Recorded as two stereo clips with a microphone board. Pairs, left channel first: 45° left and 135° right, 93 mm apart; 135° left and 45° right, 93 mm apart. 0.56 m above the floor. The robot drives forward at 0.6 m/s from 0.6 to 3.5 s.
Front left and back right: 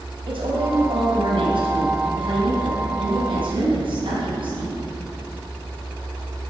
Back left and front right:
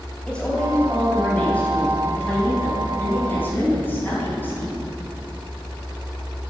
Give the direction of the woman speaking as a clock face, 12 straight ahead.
5 o'clock.